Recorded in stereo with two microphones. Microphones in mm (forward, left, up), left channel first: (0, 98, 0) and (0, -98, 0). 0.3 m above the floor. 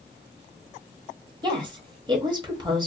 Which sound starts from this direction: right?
A woman speaking, at 1.4 s.